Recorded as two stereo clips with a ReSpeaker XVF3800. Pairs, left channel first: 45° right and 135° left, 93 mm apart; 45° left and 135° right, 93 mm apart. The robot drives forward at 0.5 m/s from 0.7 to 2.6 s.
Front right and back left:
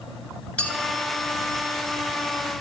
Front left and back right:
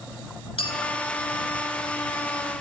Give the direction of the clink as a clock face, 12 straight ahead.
11 o'clock.